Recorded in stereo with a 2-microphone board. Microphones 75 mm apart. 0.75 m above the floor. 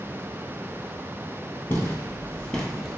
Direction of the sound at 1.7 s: 35° left (ahead or behind).